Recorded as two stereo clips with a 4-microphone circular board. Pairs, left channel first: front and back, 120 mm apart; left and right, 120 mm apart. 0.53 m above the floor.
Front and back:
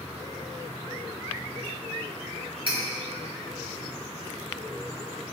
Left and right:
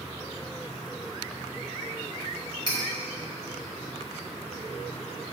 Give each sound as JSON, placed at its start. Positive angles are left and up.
{"t": 2.7, "sound": "cutlery clinking", "azimuth_deg": 140, "distance_m": 2.5}